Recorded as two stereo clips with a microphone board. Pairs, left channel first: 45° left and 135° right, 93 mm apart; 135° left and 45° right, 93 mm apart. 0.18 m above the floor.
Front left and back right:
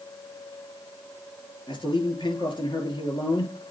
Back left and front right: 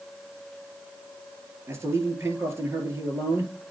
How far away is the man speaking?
About 3 m.